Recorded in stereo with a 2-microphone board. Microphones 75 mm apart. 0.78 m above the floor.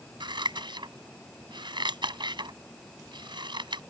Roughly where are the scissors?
Right.